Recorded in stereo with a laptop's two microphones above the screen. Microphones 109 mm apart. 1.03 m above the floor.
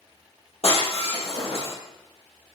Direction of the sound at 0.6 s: 65° left (ahead or behind).